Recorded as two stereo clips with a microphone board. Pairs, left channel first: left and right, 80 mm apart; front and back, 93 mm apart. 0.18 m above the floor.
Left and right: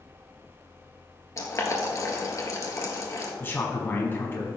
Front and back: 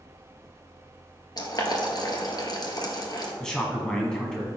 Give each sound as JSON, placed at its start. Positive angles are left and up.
{"t": 1.4, "sound": "boiling", "azimuth_deg": 40, "distance_m": 1.7}
{"t": 3.4, "sound": "a man speaking", "azimuth_deg": 75, "distance_m": 1.1}